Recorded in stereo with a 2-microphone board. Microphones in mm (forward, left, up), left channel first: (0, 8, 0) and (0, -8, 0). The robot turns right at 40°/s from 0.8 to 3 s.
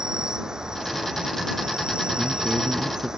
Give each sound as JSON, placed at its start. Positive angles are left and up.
{"t": 0.0, "sound": "an insect", "azimuth_deg": -125}
{"t": 2.2, "sound": "a man speaking", "azimuth_deg": -175}